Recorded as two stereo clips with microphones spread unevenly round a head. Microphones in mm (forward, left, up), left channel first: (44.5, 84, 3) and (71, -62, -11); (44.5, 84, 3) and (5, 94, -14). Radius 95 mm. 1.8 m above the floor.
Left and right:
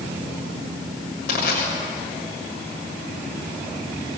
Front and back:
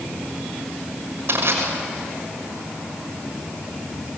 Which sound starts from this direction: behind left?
Crushing, at 1.3 s.